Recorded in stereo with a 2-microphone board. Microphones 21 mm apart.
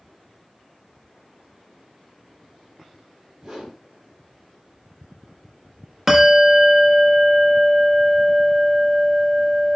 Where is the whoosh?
35° right (ahead or behind), 3.5 m.